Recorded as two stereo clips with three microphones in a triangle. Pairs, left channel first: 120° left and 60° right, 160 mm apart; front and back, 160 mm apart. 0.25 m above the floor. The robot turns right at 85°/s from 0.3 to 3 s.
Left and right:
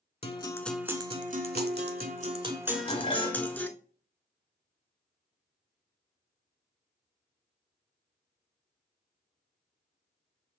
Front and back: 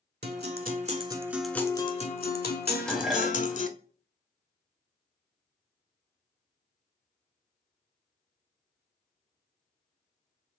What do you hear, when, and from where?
0.2 s a guitar: 175° left, 0.6 m; by 3.7 s 40° left, 0.6 m
2.7 s dishes clattering: 65° left, 1.0 m; by 3.6 s 95° left, 1.0 m